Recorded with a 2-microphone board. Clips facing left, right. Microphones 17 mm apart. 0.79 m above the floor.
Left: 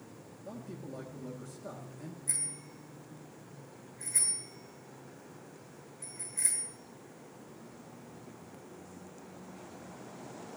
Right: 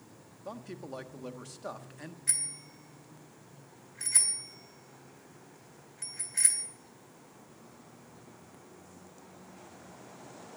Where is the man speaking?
55° right (ahead or behind), 1.2 m.